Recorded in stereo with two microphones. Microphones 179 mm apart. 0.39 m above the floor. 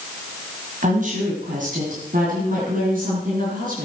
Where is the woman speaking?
50° right (ahead or behind), 2 m; by 3.9 s 55° right (ahead or behind), 4 m.